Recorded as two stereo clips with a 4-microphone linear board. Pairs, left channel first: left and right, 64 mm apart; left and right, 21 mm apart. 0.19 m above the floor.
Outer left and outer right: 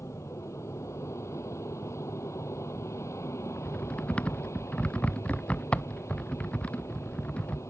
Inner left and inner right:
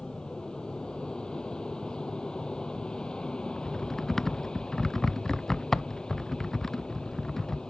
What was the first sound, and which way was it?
An aircraft, 45° left (ahead or behind).